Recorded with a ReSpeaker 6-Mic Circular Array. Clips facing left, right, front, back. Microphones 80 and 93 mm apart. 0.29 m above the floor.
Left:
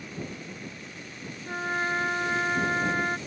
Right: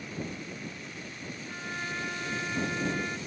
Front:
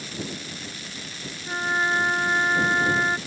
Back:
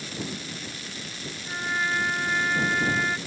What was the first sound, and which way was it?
A trumpet, 55° left.